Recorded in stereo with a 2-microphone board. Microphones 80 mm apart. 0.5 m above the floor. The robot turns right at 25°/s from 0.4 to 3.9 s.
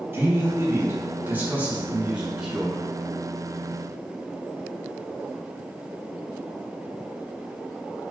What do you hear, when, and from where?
0.1 s a man speaking: 65° right, 0.7 m; by 2.8 s 5° right, 0.7 m